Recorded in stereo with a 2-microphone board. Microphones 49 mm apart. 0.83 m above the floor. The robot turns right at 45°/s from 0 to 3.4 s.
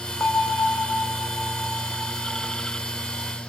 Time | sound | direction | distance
0.2 | a bell | 60° left | 1.1 m